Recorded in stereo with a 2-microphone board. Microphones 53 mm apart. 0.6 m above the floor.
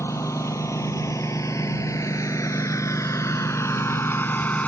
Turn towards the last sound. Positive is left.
turn(degrees=30)  # may be behind; listen again after turning